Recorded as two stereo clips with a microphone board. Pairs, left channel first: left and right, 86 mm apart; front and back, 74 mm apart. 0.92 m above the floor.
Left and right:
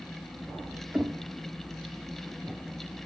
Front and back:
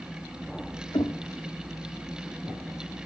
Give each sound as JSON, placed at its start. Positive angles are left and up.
{"t": 0.9, "sound": "knocking", "azimuth_deg": -10, "distance_m": 1.7}